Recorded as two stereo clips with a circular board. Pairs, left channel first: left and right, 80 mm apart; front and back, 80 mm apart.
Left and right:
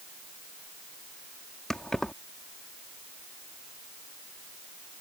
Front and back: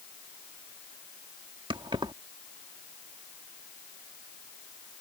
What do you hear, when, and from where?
1.7 s keys jangling: 175° left